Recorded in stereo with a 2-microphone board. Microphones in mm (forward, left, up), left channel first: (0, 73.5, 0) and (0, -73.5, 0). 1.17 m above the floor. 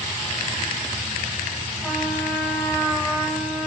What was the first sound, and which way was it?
A trumpet, 5° left (ahead or behind).